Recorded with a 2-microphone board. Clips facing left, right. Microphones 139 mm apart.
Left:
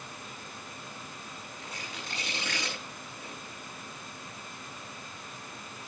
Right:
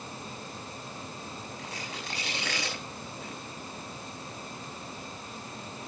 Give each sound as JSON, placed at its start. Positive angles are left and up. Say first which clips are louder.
{"t": 1.6, "sound": "tearing paper", "louder": "right 3 dB", "side_deg": -75, "distance_m": 7.5}